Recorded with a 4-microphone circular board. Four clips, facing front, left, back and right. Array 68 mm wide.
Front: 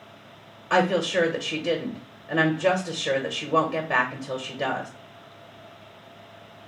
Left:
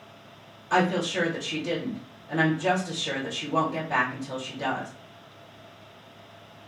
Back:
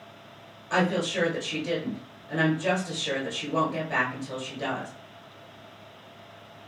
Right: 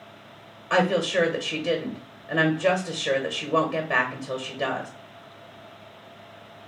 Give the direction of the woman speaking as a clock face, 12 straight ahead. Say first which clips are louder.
Right 2 dB, front 4 dB; 1 o'clock.